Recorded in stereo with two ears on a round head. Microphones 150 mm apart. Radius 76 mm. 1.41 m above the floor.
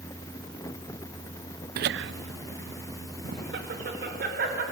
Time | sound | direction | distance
1.8 | laughter | 55° right (ahead or behind) | 0.5 m